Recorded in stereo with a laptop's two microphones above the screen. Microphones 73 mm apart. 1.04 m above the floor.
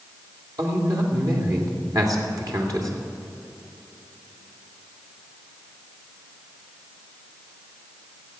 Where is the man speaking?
60° right (ahead or behind), 2.5 m.